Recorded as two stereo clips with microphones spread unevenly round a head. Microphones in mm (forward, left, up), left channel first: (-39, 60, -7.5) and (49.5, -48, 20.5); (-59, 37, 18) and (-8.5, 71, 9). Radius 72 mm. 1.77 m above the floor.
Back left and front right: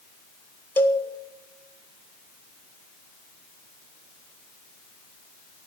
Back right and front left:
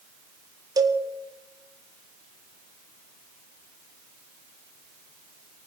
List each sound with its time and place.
0.8 s a cowbell: 50° left, 1.7 m